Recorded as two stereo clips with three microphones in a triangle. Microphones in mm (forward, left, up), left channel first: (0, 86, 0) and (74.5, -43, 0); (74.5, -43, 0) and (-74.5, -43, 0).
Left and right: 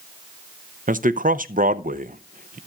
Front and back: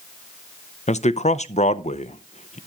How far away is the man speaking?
About 0.6 m.